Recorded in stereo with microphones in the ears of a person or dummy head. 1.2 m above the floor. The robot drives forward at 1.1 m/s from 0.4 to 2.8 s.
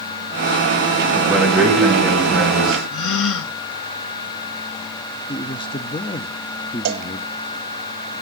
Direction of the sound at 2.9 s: 65° left (ahead or behind).